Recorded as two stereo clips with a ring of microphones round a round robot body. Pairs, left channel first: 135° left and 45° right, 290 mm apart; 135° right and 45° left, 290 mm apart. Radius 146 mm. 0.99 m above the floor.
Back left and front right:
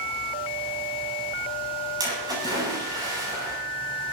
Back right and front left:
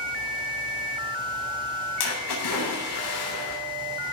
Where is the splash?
120° right, 9 m.